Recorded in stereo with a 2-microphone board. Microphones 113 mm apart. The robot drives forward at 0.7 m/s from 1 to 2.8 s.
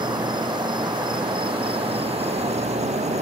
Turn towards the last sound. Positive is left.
turn(degrees=-80)